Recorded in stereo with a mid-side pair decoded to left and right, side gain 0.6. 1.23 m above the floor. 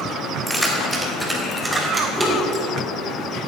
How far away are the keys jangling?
About 3.5 m.